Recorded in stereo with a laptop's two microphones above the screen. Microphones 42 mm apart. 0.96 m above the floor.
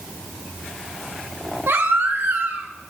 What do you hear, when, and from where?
1.7 s a baby crying: 70° right (ahead or behind), 2 m